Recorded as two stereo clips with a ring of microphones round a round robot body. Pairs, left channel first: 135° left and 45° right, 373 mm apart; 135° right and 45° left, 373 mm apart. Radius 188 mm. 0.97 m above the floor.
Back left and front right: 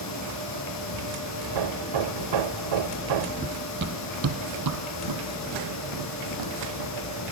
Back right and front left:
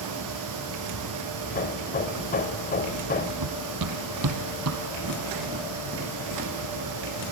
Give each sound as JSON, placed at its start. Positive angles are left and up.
{"t": 0.0, "sound": "running water", "azimuth_deg": 90, "distance_m": 4.0}
{"t": 1.4, "sound": "hammering", "azimuth_deg": -70, "distance_m": 1.3}
{"t": 3.4, "sound": "running footsteps", "azimuth_deg": 20, "distance_m": 1.7}